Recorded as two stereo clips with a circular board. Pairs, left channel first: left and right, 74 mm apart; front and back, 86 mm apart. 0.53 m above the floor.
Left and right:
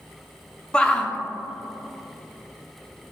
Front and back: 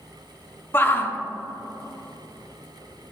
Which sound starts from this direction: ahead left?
A shout, at 0.7 s.